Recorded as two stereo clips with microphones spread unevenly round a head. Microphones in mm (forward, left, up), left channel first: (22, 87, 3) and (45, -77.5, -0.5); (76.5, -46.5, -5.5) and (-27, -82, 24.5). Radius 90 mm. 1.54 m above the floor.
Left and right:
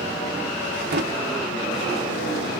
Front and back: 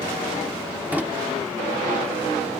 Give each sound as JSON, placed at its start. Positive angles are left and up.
{"t": 0.9, "sound": "a drawer", "azimuth_deg": -100, "distance_m": 1.0}